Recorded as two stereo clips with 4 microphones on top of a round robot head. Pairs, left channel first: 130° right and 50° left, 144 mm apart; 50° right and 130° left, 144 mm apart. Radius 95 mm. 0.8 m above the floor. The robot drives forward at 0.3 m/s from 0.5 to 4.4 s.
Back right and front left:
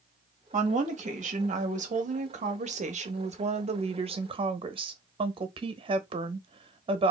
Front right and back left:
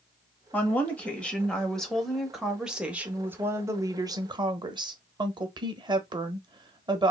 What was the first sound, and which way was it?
A woman speaking, 25° left.